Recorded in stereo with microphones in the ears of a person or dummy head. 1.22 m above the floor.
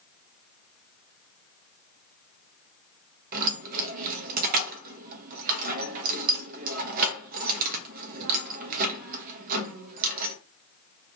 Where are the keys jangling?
50° right (ahead or behind), 0.6 m.